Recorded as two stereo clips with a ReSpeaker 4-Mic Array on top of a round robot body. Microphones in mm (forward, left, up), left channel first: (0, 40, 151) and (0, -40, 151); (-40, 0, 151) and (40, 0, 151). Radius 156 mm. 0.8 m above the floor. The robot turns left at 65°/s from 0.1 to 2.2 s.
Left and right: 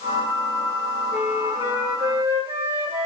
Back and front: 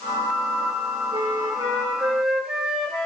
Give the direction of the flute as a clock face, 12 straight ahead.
12 o'clock.